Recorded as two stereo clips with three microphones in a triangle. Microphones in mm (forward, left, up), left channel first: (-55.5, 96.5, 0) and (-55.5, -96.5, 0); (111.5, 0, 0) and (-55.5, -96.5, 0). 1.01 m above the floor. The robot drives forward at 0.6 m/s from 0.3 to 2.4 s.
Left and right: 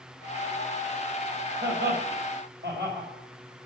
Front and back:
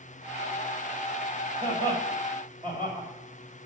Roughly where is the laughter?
Right.